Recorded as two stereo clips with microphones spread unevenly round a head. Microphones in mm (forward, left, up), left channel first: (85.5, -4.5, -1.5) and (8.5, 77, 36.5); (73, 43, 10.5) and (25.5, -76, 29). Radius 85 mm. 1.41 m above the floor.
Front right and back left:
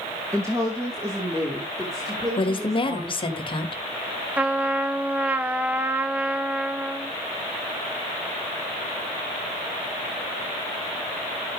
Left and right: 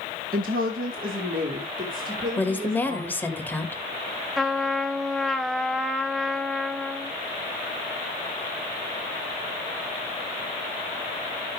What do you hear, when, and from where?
0.3 s a woman speaking: 150° right, 1.8 m; by 3.4 s 155° right, 3.5 m
2.4 s a woman speaking: 5° right, 2.5 m
4.4 s a trumpet: 170° left, 0.6 m